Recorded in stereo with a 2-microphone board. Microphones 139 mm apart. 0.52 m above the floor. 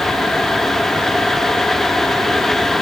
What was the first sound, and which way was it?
Only background noise.